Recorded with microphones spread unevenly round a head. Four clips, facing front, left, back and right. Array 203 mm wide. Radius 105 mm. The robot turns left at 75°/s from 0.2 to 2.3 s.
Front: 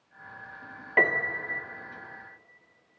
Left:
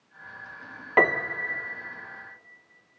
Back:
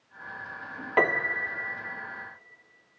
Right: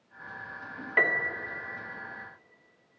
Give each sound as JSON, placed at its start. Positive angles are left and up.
{"t": 1.0, "sound": "a piano", "azimuth_deg": 110, "distance_m": 1.0}